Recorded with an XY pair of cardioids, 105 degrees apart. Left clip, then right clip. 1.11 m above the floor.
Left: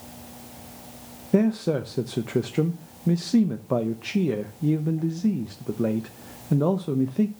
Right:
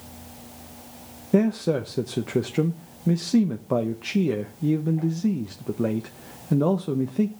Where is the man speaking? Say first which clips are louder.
Right 1 dB; 5° right, 0.8 m.